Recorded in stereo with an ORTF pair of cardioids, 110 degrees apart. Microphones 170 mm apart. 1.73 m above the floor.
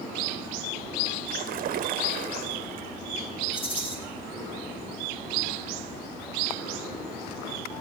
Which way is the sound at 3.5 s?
30° left.